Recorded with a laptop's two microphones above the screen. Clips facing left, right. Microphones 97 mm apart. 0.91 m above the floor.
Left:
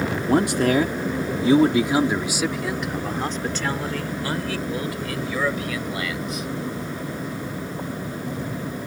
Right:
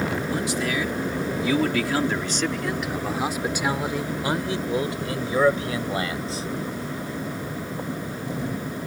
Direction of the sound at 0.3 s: 65° left (ahead or behind).